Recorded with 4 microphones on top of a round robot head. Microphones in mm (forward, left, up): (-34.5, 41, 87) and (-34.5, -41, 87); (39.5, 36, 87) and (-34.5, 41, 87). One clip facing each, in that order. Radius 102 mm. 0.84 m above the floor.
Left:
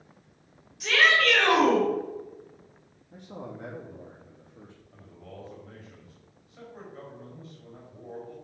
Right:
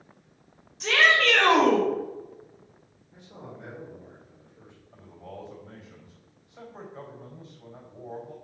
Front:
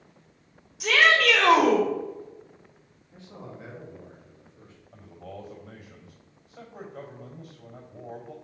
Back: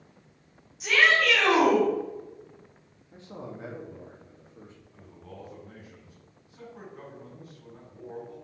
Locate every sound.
0.8 s a shout: 30° right, 3 m
3.1 s a man speaking: 120° left, 1.8 m
4.9 s a man speaking: 20° right, 4 m